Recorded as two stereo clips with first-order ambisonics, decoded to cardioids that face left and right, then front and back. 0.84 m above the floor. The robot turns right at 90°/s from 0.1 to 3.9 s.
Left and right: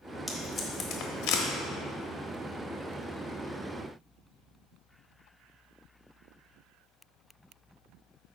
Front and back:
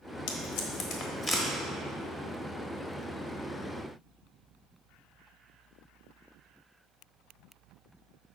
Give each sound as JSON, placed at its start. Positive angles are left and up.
{"t": 0.3, "sound": "tape being pulled", "azimuth_deg": -20, "distance_m": 1.2}